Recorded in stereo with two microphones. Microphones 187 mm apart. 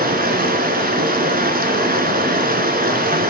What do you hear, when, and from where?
0.0 s running water: 55° right (ahead or behind), 1.2 m